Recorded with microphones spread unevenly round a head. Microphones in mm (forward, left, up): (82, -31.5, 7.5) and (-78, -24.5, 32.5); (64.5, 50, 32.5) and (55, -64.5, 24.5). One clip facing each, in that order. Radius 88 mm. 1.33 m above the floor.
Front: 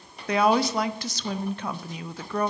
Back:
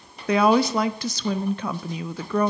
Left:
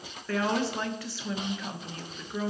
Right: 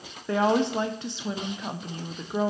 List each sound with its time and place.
0.3 s a woman speaking: 165° right, 0.5 m